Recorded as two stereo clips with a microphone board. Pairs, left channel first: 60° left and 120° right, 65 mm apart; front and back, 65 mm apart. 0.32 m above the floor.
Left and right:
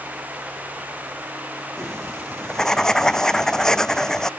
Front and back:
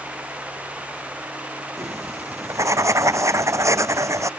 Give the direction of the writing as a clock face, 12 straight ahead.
7 o'clock.